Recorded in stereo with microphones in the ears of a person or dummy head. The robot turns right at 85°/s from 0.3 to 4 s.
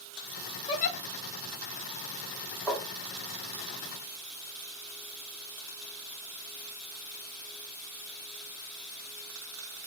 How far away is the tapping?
About 2.5 m.